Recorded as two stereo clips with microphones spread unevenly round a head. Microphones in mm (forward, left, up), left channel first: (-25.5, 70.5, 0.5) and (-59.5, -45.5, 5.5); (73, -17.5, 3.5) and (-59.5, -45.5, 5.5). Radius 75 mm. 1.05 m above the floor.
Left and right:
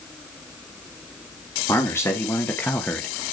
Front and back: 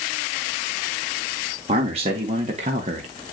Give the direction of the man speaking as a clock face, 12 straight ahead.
7 o'clock.